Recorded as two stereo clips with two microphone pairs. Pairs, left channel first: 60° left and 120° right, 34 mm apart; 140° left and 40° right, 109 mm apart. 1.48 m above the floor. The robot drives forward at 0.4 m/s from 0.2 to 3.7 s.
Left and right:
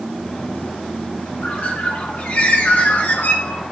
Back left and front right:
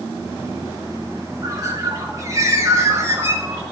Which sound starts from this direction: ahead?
A bird, at 1.4 s.